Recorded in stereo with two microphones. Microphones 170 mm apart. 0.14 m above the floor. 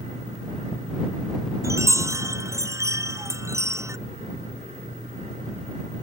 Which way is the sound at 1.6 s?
15° right (ahead or behind).